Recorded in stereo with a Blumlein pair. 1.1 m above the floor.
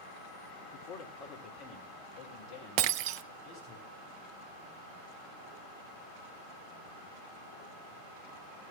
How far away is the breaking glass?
About 0.5 m.